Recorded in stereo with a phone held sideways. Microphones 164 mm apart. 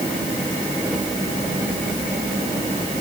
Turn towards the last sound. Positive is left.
No sound to turn to.